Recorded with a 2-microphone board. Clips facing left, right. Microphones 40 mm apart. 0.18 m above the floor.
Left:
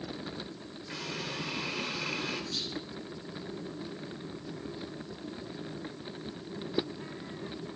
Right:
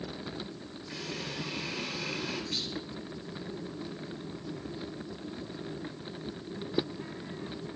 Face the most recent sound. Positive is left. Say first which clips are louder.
# right 1 dB
turn(degrees=-60)  # may be behind; listen again after turning